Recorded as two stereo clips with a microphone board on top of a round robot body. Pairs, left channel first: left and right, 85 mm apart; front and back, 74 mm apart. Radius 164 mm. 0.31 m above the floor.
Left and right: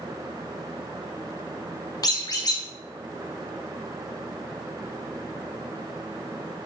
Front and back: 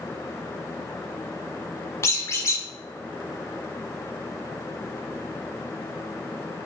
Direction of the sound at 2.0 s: 50° left.